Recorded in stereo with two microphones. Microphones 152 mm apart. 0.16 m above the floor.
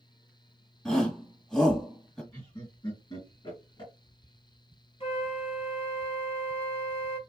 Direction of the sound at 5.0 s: 40° left (ahead or behind).